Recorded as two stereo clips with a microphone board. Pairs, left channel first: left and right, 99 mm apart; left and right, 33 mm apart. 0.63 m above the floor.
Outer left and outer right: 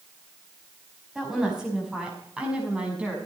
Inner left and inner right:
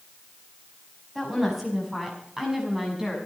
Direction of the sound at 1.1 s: 5° right (ahead or behind).